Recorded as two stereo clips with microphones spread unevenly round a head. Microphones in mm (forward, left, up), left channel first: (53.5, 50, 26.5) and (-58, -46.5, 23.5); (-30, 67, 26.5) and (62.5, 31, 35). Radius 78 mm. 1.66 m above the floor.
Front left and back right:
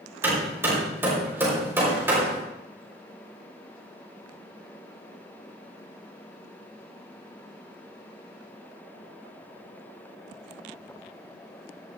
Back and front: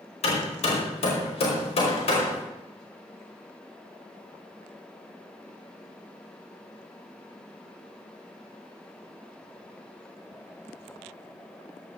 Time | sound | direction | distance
0.2 | hammering | 145° left | 5 m